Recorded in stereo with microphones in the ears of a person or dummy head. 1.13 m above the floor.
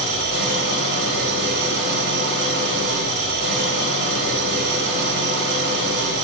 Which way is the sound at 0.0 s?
60° right (ahead or behind).